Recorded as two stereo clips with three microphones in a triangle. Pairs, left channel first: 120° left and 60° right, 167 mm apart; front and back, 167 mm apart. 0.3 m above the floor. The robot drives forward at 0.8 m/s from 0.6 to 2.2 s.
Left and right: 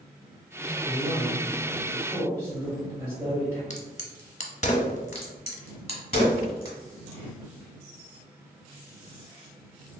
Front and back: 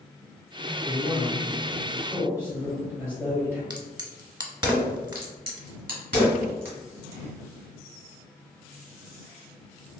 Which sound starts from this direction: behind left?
A crack, at 3.7 s.